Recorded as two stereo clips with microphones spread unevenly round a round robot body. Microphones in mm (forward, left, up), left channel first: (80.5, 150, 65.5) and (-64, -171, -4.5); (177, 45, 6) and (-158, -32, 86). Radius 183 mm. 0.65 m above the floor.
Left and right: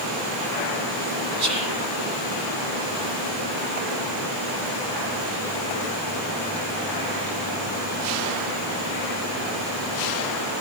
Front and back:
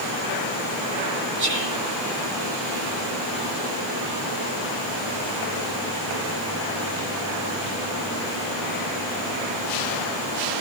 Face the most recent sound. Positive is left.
turn(degrees=-105)